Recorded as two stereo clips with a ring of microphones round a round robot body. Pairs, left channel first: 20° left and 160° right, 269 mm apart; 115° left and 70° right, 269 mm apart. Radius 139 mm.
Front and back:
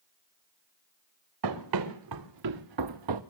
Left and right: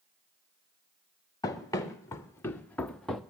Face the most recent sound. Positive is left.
turn(degrees=-155)